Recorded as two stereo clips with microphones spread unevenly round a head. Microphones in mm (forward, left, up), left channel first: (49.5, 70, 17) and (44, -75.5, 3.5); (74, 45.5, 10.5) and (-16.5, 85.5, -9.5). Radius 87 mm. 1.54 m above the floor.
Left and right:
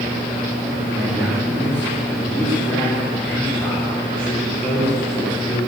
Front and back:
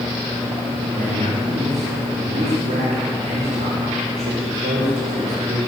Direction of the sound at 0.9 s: 170° right.